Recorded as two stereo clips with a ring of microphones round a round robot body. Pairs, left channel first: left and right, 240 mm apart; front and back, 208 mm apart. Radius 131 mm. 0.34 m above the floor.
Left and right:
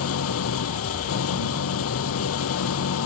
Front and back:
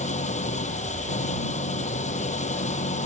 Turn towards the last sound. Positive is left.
turn(degrees=55)